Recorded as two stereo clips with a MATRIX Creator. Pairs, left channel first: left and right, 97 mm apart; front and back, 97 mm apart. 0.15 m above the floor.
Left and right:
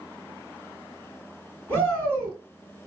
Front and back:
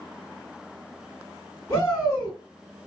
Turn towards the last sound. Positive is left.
turn(degrees=40)